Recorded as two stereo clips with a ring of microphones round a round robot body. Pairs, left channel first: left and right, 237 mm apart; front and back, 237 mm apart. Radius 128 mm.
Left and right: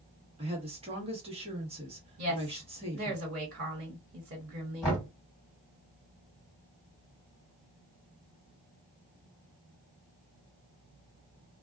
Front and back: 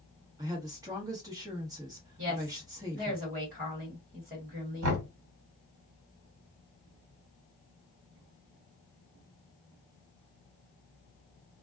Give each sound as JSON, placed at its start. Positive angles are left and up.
{"t": 0.4, "sound": "a woman speaking", "azimuth_deg": -120, "distance_m": 1.1}
{"t": 2.2, "sound": "a woman speaking", "azimuth_deg": -105, "distance_m": 1.5}
{"t": 4.8, "sound": "knocking", "azimuth_deg": 175, "distance_m": 1.5}